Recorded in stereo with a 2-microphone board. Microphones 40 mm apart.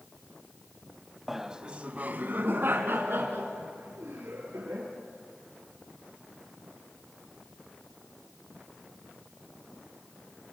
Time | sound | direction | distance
1.3 | laughter | 5° right (ahead or behind) | 1.1 m